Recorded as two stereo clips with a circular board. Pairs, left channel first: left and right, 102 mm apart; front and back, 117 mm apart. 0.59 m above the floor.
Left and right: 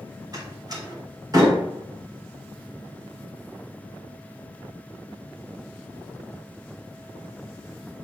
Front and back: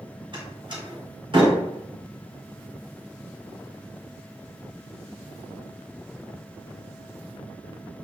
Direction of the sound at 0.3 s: 135° right.